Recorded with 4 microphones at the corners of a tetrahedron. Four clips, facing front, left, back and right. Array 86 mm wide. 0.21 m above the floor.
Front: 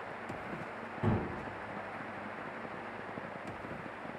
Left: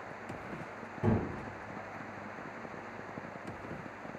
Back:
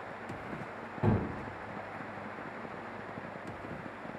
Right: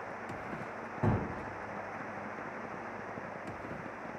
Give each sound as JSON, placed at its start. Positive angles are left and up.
{"t": 1.0, "sound": "a gunshot", "azimuth_deg": -110, "distance_m": 0.8}